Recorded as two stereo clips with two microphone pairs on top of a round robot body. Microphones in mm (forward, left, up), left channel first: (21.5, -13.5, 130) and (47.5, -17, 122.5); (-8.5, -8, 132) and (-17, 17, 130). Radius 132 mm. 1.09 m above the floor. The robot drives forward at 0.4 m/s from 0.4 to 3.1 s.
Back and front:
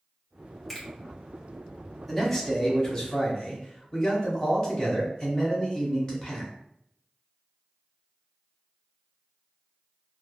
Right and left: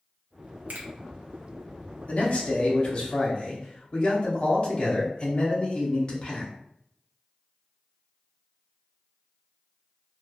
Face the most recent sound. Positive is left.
turn(degrees=-120)